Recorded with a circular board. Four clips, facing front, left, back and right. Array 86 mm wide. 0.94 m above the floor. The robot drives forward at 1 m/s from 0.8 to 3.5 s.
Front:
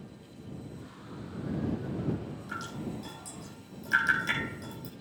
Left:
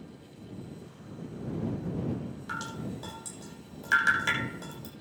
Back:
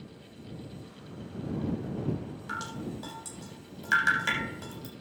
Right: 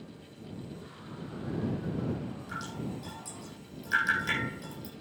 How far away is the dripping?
About 7 m.